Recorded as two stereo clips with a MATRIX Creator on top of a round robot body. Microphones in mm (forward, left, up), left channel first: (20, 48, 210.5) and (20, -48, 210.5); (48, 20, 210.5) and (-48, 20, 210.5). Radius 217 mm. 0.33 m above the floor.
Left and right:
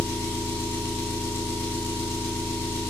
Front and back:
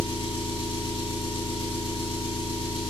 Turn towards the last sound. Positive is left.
turn(degrees=25)